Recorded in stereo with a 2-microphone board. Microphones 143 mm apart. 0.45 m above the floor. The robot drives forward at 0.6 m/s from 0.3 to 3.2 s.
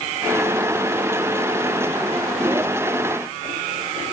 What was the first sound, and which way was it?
Only background noise.